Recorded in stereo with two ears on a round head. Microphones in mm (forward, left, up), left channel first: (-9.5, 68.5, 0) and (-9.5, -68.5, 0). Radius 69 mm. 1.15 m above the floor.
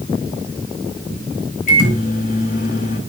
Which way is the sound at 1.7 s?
55° left (ahead or behind).